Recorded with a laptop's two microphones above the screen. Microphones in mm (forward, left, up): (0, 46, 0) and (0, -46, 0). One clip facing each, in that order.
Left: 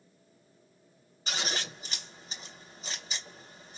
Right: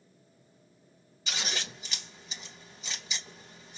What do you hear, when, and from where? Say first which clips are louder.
1.3 s scissors: left 2 dB; 45° left (ahead or behind), 3 m